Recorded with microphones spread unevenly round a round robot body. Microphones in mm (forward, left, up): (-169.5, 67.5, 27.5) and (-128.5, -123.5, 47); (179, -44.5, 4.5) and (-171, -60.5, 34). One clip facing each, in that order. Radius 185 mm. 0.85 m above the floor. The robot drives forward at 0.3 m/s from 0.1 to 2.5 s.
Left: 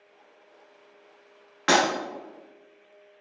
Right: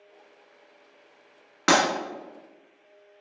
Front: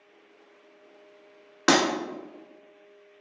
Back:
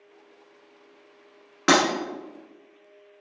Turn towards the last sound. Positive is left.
turn(degrees=-90)